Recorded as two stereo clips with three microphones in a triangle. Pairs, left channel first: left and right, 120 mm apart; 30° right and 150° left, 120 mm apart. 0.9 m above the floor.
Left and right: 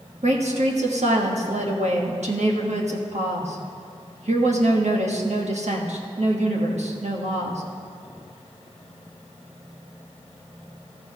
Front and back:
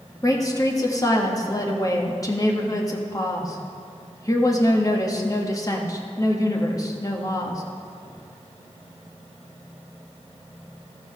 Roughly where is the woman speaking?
Right.